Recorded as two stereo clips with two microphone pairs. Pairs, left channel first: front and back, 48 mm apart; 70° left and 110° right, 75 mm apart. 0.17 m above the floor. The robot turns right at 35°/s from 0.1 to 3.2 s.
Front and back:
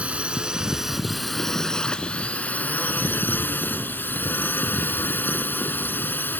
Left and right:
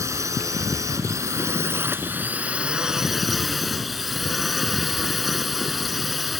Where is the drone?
130° right; by 6.4 s 20° right.